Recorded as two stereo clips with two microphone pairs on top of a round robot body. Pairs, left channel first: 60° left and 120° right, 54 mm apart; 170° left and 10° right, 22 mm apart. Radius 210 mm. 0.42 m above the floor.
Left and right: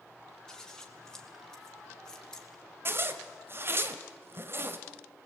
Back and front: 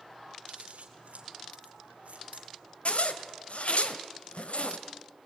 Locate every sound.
0.5 s scissors: 15° right, 3 m
2.9 s a zipper: 165° right, 1.4 m